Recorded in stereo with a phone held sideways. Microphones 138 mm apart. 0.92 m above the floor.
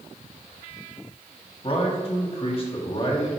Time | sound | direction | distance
1.6 | a man speaking | 40° left (ahead or behind) | 1.5 m